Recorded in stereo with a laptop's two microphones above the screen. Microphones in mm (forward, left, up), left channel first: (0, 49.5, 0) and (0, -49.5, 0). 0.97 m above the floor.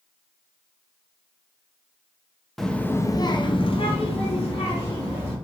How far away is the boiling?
No boiling in this recording.